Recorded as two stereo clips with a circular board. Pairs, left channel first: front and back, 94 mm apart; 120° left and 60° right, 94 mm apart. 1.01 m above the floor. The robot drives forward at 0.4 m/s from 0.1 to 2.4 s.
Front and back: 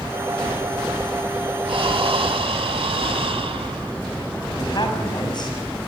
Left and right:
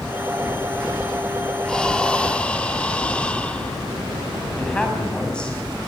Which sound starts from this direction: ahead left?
A man speaking, at 4.6 s.